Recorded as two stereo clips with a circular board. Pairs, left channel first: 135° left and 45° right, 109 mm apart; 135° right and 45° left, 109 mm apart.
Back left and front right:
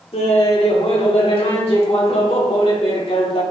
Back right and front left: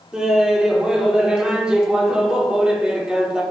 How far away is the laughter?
About 1.6 m.